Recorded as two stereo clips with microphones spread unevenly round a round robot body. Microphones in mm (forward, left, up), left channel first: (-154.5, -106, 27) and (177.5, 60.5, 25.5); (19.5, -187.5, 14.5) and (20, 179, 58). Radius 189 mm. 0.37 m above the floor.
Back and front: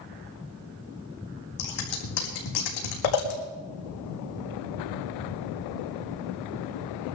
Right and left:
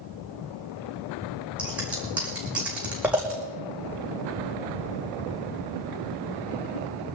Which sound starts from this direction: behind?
Scissors, at 1.6 s.